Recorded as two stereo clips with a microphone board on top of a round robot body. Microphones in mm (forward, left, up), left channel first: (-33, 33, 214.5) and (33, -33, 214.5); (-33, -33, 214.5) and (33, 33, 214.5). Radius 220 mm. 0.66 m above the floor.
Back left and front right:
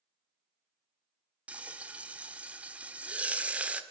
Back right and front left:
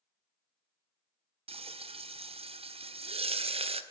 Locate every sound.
1.5 s frying: 30° left, 1.6 m